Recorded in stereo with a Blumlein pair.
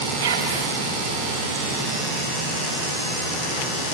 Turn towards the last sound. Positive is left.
turn(degrees=-65)